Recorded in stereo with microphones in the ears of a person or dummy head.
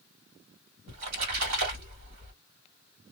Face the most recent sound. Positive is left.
turn(degrees=-85)